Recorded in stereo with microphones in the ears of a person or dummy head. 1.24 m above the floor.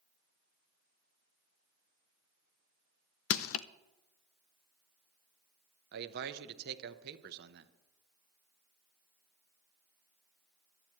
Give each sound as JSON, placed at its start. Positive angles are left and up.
{"t": 3.3, "sound": "crushing", "side_deg": 65, "distance_m": 0.5}
{"t": 5.9, "sound": "a man speaking", "side_deg": -55, "distance_m": 0.9}